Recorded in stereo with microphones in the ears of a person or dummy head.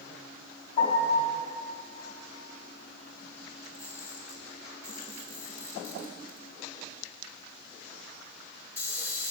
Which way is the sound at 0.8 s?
30° left (ahead or behind).